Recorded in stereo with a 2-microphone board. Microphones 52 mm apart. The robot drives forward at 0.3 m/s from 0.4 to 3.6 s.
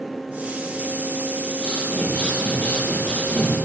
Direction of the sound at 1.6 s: 35° left (ahead or behind).